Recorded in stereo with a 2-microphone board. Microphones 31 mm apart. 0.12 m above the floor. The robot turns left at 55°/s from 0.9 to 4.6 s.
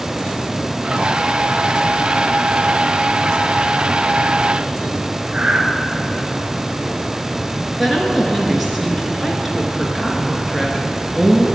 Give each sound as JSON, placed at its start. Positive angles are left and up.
{"t": 5.3, "sound": "breathing", "side_deg": -35, "distance_m": 1.1}
{"t": 7.8, "sound": "a woman speaking", "side_deg": -5, "distance_m": 1.4}